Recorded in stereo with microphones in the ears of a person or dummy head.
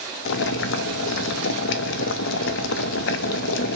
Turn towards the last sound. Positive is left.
turn(degrees=70)  # may be behind; listen again after turning